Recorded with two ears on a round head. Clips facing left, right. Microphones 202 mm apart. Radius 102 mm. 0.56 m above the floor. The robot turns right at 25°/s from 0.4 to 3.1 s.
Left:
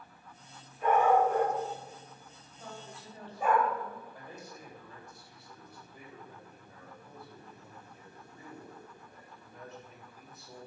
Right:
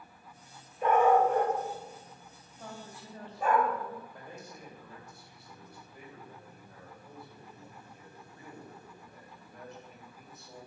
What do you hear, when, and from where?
0.8 s a dog barking: 50° right (ahead or behind), 3 m; by 3.6 s 10° left (ahead or behind), 3 m
2.6 s a woman speaking: 50° right (ahead or behind), 3.5 m; by 4.0 s 60° right (ahead or behind), 3.5 m
4.1 s a man speaking: centre (ahead or behind), 3 m